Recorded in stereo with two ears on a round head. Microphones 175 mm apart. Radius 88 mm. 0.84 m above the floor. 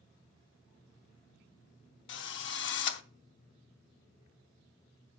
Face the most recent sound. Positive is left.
turn(degrees=65)  # may be behind; listen again after turning